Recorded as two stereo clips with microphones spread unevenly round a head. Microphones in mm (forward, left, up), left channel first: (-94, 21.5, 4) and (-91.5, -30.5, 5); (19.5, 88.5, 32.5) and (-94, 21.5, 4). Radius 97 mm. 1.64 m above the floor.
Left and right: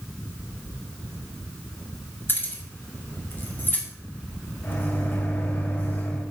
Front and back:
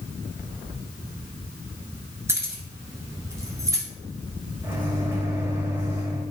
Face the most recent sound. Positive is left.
turn(degrees=135)